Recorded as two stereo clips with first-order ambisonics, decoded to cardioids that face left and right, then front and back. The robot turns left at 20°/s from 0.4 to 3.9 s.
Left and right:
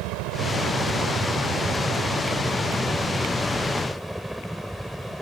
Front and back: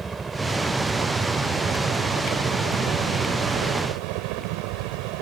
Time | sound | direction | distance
0.0 | a helicopter | 105° right | ?